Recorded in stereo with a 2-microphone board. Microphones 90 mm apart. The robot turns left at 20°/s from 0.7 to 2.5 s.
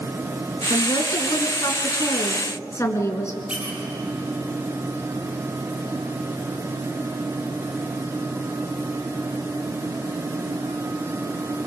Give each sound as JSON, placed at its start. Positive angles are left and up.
{"t": 0.7, "sound": "a woman speaking", "azimuth_deg": 75, "distance_m": 2.5}
{"t": 3.5, "sound": "a squeak", "side_deg": -10, "distance_m": 5.0}